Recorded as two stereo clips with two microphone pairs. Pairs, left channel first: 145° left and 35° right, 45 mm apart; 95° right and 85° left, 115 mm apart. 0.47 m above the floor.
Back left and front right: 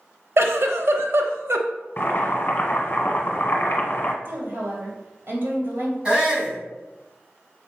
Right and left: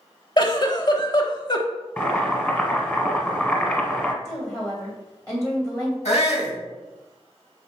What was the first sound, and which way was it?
A giggle, 50° right.